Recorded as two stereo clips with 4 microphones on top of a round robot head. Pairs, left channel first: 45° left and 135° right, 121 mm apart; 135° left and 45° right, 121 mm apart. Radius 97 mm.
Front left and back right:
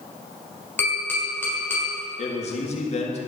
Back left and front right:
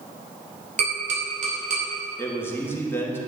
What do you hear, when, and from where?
0.8 s tapping: 30° right, 4 m
2.2 s a man speaking: 65° left, 1.8 m